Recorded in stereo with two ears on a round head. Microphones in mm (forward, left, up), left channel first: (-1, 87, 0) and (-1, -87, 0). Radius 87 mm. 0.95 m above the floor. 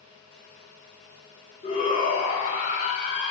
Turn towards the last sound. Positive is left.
turn(degrees=35)  # may be behind; listen again after turning